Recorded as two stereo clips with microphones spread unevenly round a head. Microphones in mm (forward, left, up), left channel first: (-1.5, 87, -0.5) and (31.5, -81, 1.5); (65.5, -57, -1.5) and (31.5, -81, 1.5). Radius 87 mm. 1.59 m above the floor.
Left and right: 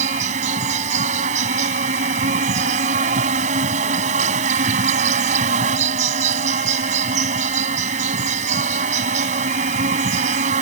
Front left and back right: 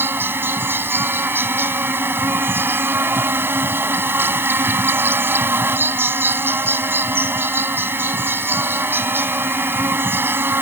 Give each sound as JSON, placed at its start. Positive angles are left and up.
{"t": 0.0, "sound": "an insect", "azimuth_deg": -130}